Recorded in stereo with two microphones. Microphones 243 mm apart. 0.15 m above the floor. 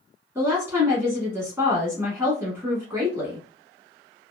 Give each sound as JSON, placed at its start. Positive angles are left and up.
{"t": 0.3, "sound": "a woman speaking", "side_deg": -10, "distance_m": 1.1}